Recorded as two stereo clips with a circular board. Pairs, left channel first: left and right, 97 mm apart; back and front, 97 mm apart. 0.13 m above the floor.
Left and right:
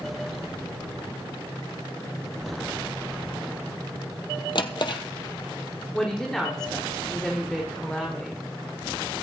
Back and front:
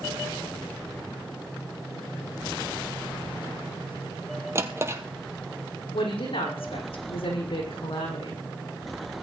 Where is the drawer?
60° left, 1.4 m.